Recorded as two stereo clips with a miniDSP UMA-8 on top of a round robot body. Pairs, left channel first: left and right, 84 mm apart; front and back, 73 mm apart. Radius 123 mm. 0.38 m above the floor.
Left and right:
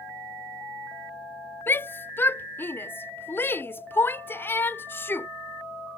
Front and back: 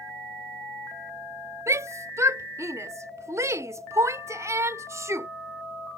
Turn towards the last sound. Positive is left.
turn(degrees=145)